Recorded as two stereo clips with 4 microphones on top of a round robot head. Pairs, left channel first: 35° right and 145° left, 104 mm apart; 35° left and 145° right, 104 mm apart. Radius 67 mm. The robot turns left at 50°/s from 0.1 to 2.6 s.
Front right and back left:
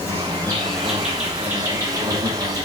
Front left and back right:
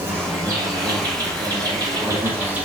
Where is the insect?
85° right, 0.9 m; by 2.6 s 150° left, 0.9 m.